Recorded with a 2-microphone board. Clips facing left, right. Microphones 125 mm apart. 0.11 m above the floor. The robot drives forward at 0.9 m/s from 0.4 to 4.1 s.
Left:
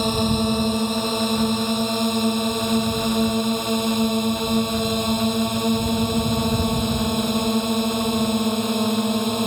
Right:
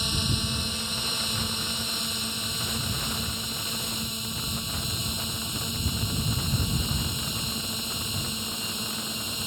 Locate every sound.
0.0 s a drone: 55° left (ahead or behind); by 9.5 s 65° left (ahead or behind)